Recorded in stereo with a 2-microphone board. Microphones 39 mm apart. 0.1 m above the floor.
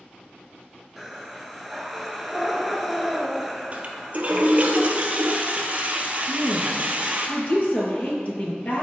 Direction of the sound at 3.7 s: 35° right (ahead or behind).